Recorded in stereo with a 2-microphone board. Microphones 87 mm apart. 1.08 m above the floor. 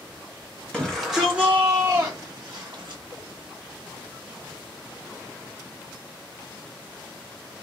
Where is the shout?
10° left (ahead or behind), 0.8 m; by 3.0 s 50° right (ahead or behind), 1.2 m.